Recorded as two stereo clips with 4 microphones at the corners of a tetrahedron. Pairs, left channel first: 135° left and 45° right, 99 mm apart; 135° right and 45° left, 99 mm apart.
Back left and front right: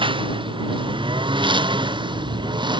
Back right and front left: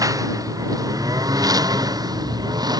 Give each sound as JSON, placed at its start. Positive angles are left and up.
{"t": 0.0, "sound": "a lawn mower", "azimuth_deg": -10}